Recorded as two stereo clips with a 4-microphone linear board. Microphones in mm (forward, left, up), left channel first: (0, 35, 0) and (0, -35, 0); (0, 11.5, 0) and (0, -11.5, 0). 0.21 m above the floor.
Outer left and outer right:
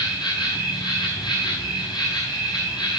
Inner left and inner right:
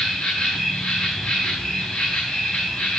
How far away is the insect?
About 5.5 m.